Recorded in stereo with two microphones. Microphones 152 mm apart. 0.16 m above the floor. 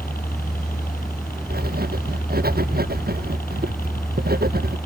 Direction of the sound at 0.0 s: 65° left (ahead or behind).